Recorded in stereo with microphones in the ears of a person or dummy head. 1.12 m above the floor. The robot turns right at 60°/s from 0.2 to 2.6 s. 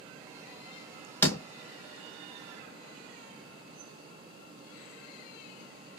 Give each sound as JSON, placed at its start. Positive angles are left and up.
{"t": 1.2, "sound": "a door slam", "side_deg": 10, "distance_m": 0.8}